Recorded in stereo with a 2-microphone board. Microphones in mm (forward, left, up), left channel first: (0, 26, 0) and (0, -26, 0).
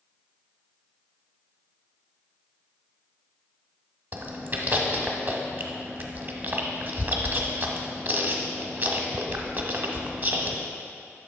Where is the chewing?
35° right (ahead or behind), 0.7 m.